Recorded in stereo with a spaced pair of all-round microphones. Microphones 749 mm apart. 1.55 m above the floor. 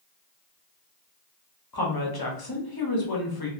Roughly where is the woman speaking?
Left.